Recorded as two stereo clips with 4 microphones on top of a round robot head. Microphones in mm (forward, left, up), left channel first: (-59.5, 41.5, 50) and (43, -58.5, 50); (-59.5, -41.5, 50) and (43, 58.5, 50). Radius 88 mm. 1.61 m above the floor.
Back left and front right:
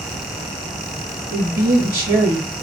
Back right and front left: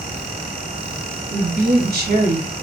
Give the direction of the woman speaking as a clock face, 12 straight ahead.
11 o'clock.